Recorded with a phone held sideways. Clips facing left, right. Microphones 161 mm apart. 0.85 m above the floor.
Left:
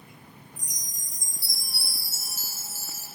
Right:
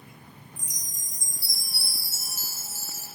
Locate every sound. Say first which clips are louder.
0.6 s a chime: right 1 dB; 50° right (ahead or behind), 4.5 m